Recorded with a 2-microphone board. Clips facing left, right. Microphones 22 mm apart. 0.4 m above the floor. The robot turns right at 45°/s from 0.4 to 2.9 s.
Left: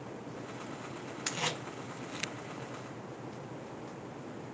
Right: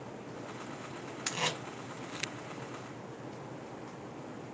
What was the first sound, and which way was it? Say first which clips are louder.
Tape being pulled: right 2 dB; 10° right (ahead or behind).